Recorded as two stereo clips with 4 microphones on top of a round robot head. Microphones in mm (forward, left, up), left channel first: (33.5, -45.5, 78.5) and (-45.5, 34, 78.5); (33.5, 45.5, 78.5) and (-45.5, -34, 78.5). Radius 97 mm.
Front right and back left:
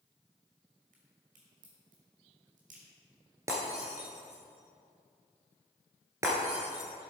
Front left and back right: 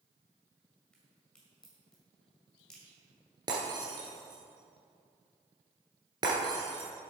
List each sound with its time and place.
0.9 s a crack: 125° left, 2 m
3.5 s breaking glass: 170° right, 1.7 m